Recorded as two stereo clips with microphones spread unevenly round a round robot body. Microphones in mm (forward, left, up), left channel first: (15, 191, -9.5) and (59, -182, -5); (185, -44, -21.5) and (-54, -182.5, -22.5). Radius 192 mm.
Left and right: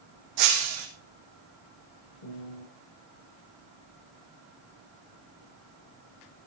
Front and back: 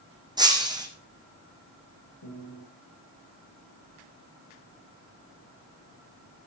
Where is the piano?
60° left, 8.5 m.